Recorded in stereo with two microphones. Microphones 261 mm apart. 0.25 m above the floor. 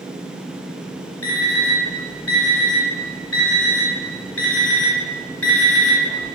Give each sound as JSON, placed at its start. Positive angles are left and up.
{"t": 1.2, "sound": "an alarm clock", "side_deg": 45, "distance_m": 1.4}